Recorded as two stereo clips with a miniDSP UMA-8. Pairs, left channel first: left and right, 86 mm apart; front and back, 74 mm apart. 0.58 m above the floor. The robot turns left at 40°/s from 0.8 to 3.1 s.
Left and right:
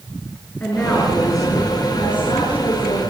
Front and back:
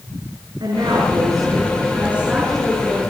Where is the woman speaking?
160° left, 6.5 m; by 3.0 s 75° left, 6.5 m.